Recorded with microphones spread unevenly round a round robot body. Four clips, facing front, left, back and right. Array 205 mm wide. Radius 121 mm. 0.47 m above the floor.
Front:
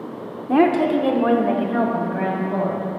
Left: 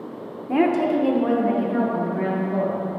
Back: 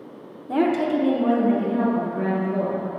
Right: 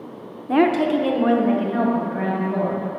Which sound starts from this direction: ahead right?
A woman speaking, at 0.5 s.